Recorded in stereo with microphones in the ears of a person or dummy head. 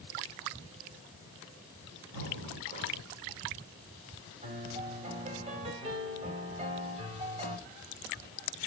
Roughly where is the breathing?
Right.